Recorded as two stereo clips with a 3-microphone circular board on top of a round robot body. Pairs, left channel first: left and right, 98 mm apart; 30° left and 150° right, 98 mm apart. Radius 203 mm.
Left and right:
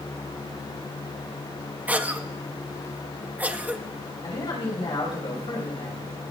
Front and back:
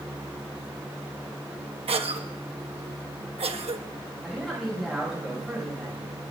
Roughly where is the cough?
Behind.